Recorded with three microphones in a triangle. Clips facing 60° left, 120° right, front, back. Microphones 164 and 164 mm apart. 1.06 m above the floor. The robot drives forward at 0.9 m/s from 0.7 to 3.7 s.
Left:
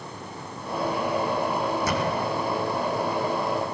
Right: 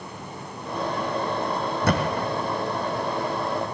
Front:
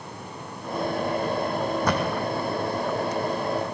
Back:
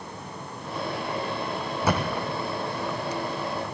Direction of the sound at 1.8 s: 95° right.